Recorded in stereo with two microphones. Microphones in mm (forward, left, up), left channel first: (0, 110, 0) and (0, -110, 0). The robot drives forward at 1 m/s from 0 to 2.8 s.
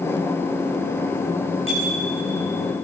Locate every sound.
1.7 s a bicycle bell: 75° right (ahead or behind), 8.5 m; by 2.1 s 70° right (ahead or behind), 8.5 m